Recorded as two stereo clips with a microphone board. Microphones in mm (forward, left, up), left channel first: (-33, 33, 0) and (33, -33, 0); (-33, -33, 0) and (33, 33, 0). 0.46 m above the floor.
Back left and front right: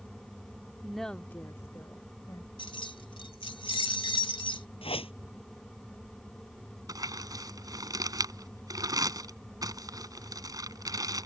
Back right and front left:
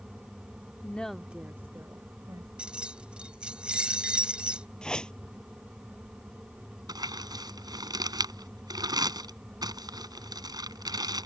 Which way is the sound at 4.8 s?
145° left.